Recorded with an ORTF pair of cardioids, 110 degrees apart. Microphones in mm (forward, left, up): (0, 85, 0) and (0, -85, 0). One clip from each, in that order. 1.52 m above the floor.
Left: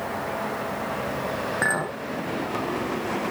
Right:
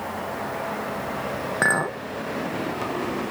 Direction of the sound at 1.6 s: 20° right.